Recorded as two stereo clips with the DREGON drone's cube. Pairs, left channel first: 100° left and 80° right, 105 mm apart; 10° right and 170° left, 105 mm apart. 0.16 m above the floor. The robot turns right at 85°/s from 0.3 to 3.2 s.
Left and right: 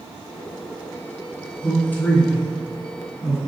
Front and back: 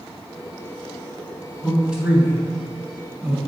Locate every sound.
1.6 s a man speaking: 80° left, 1.0 m; by 3.5 s 145° right, 1.0 m